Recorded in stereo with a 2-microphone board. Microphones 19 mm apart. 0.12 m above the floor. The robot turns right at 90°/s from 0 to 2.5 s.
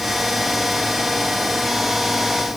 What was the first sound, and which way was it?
Only background noise.